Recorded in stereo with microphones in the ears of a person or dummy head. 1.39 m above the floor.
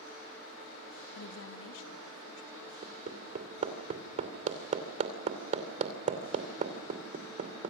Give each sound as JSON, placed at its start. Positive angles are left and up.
{"t": 1.1, "sound": "a woman speaking", "side_deg": 60, "distance_m": 1.2}
{"t": 2.8, "sound": "hammering", "side_deg": -45, "distance_m": 2.5}